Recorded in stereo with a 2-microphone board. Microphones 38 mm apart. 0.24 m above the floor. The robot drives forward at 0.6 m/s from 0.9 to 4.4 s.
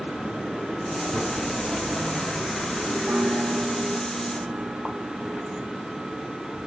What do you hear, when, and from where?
3.1 s a piano: 75° right (ahead or behind), 3 m; by 5.4 s 65° right (ahead or behind), 3 m